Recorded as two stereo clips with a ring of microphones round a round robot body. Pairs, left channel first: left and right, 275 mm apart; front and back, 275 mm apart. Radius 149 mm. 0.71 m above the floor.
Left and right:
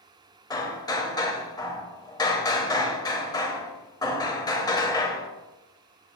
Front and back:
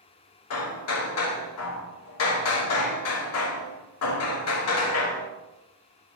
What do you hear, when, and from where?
0.5 s hammering: 15° left, 0.7 m